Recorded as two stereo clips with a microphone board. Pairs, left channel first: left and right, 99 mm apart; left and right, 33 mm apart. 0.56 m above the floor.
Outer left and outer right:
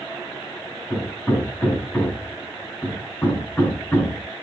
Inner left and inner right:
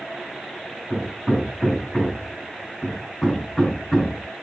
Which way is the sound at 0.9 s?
15° left (ahead or behind).